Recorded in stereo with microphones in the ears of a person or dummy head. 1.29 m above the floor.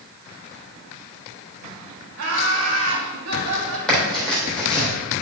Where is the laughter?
80° right, 2 m; by 3.8 s 70° right (ahead or behind), 1.7 m.